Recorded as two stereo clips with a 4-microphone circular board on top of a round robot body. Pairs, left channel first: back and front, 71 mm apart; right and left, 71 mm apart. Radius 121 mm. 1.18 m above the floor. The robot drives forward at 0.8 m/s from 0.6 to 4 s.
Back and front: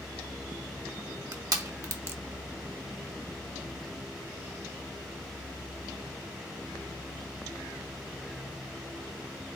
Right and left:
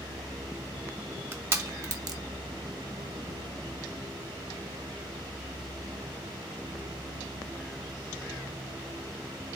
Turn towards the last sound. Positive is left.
turn(degrees=145)